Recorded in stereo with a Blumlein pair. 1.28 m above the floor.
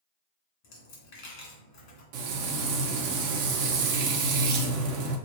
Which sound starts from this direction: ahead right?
Frying, at 2.1 s.